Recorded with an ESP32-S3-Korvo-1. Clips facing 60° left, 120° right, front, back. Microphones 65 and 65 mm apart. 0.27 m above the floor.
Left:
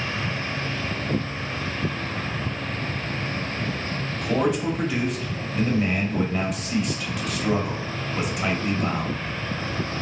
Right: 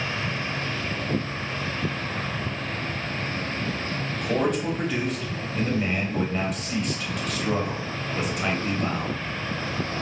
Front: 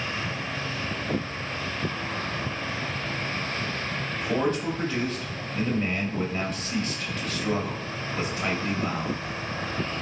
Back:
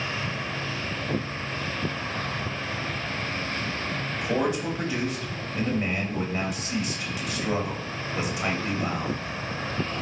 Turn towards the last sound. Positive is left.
turn(degrees=140)